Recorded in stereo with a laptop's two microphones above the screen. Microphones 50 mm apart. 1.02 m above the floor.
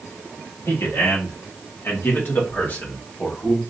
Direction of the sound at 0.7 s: 65° left (ahead or behind).